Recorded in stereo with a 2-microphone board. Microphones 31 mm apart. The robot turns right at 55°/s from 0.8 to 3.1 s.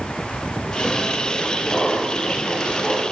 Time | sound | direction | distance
1.7 | laughter | 15° left | 4.5 m